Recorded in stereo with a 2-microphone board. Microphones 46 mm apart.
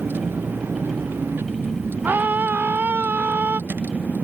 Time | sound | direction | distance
0.0 | a vehicle | 55° right (ahead or behind) | ?
2.0 | a scream | 45° right (ahead or behind) | ?